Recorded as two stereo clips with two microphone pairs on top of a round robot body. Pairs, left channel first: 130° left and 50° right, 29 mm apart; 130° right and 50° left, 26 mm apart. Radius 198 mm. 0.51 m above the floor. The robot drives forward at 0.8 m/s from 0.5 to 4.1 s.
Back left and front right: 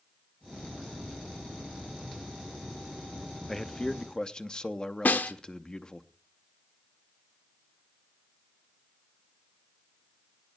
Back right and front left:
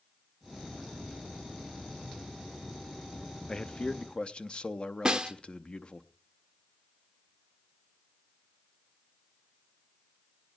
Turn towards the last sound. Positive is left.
turn(degrees=115)